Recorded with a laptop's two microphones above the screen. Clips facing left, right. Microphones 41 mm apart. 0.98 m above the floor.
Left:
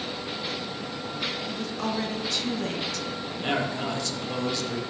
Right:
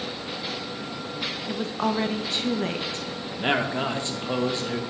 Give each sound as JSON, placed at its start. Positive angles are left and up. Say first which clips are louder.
{"t": 1.5, "sound": "a woman speaking", "louder": "right 4 dB", "side_deg": -30, "distance_m": 0.6}
{"t": 3.4, "sound": "a man speaking", "louder": "right 4 dB", "side_deg": -30, "distance_m": 1.0}